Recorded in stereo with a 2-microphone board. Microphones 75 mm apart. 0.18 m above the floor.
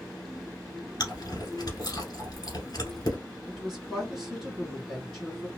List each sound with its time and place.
1.0 s chewing: 60° left (ahead or behind), 1.3 m
3.5 s a woman speaking: centre (ahead or behind), 1.8 m